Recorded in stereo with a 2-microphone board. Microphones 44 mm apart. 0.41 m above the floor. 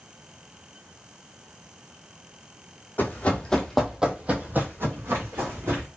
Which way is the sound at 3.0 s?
40° left (ahead or behind).